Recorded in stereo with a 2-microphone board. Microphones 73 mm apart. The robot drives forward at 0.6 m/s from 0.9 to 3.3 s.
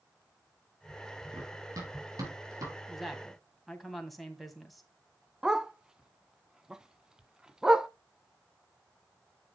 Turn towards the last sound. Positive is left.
turn(degrees=-10)  # may be behind; listen again after turning